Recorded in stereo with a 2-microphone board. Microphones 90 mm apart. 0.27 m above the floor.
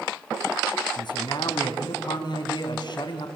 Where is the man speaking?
55° left (ahead or behind), 3 m.